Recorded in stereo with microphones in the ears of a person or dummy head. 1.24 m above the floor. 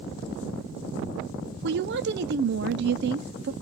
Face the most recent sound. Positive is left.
turn(degrees=-50)  # may be behind; listen again after turning